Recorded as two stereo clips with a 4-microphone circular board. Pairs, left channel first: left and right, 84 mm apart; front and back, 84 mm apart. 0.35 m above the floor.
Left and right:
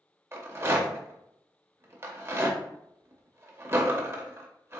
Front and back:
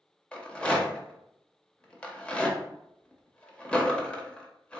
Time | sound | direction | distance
0.3 | a rattle | 65° right | 0.7 m